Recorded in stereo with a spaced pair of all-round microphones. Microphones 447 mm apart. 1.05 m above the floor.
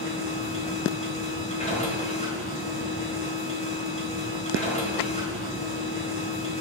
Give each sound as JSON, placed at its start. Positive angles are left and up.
{"t": 0.0, "sound": "a machine running", "side_deg": 15, "distance_m": 3.0}